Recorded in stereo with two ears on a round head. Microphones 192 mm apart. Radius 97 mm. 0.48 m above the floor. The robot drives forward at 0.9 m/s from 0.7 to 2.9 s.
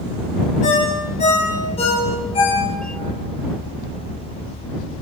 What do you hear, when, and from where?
0.6 s a ringtone: 35° left (ahead or behind), 5 m; by 3.1 s 25° left (ahead or behind), 7 m